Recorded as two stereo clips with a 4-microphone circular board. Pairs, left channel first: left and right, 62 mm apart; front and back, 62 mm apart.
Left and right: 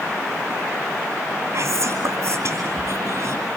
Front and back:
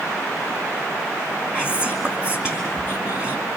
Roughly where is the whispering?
Right.